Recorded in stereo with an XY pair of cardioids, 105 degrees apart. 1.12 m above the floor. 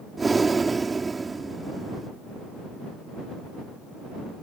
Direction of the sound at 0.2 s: 25° right.